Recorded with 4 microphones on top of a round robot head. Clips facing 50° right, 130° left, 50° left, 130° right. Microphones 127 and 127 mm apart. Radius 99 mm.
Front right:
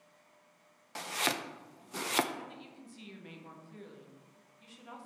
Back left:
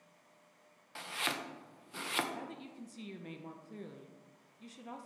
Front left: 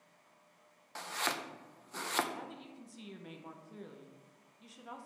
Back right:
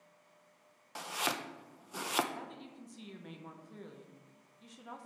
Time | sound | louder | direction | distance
0.9 | chopping | front right 5 dB, back right 1 dB | 55° right | 0.6 m
2.3 | a woman speaking | back left 1 dB, even | 135° left | 0.9 m